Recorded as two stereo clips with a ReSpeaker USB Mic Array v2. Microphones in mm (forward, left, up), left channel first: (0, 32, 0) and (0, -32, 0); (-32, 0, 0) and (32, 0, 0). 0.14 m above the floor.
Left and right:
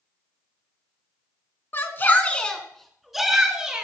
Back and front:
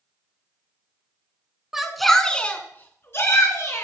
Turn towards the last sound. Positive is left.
turn(degrees=-165)